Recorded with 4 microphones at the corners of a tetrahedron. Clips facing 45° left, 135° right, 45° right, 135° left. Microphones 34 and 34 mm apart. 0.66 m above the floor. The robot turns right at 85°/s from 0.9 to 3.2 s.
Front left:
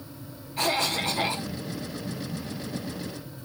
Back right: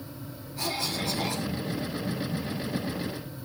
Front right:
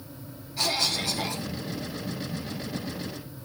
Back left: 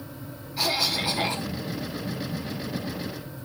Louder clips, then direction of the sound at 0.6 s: Front left 5 dB, back left 2 dB; 60° left.